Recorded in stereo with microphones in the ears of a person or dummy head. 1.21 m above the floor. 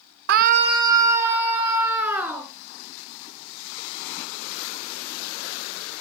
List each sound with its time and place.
0.3 s a scream: 55° right (ahead or behind), 0.6 m; by 2.5 s 5° right (ahead or behind), 3.5 m